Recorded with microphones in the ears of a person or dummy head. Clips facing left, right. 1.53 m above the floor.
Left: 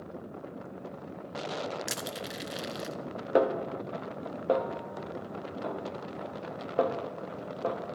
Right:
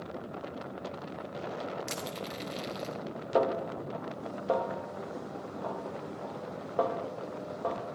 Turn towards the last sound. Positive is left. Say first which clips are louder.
# left 2 dB
turn(degrees=30)  # may be behind; listen again after turning